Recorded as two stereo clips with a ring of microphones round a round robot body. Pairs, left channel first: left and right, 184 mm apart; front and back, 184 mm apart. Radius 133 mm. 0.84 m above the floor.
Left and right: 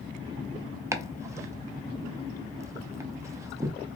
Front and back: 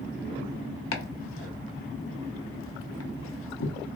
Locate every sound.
0.9 s chopping: 15° right, 0.5 m